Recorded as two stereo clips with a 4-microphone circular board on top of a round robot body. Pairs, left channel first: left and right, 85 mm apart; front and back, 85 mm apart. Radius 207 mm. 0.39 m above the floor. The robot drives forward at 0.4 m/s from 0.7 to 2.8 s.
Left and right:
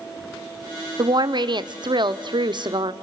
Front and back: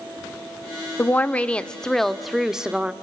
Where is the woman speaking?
65° right, 1.4 m; by 2.9 s 105° right, 1.3 m.